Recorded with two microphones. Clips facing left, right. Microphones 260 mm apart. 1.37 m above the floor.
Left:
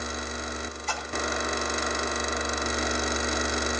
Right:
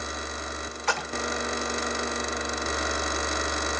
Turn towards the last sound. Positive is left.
turn(degrees=-75)  # may be behind; listen again after turning